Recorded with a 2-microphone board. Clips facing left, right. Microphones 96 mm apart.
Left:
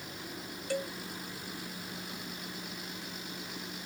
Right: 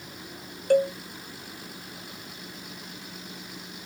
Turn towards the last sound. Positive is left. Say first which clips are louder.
# right 14 dB
turn(degrees=-50)  # may be behind; listen again after turning